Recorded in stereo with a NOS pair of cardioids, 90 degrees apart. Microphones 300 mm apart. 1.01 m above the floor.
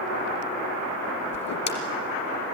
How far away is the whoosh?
About 3 m.